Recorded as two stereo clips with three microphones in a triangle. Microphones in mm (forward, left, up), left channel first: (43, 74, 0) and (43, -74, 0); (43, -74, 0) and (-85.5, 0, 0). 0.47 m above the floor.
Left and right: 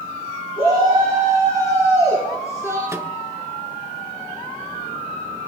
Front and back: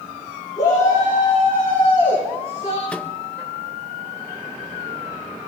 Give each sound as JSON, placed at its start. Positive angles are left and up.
{"t": 0.6, "sound": "a shout", "azimuth_deg": 35, "distance_m": 8.5}
{"t": 2.9, "sound": "a microwave", "azimuth_deg": -95, "distance_m": 1.0}